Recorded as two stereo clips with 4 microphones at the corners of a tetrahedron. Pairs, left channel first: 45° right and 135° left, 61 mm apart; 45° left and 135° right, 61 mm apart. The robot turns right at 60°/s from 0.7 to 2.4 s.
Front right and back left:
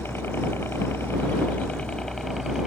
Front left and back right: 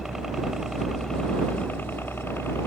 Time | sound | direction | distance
0.0 | a helicopter | 55° right | ?